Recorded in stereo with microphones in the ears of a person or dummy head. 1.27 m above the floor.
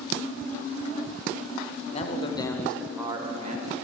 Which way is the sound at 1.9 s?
40° left (ahead or behind).